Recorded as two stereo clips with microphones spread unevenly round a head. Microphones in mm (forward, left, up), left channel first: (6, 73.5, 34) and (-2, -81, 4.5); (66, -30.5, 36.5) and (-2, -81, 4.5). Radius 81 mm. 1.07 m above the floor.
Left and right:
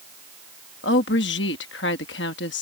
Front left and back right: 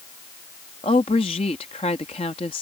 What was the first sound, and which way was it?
A woman speaking, 85° left.